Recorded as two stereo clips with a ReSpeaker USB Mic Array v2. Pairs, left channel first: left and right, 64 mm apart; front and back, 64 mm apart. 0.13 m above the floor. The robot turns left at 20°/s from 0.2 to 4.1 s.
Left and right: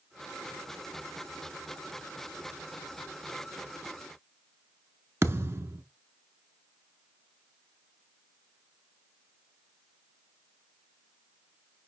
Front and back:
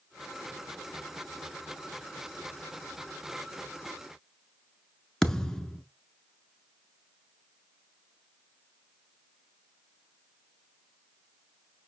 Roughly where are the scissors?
I don't hear scissors.